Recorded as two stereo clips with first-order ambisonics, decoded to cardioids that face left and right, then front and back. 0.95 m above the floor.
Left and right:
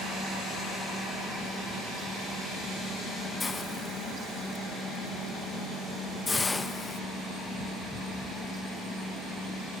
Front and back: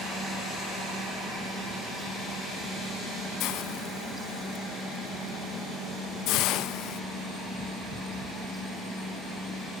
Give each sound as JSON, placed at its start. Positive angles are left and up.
{"t": 3.4, "sound": "a hiss", "azimuth_deg": 15, "distance_m": 0.6}